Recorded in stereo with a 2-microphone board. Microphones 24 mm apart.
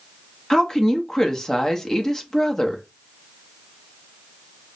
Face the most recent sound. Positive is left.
turn(degrees=25)  # may be behind; listen again after turning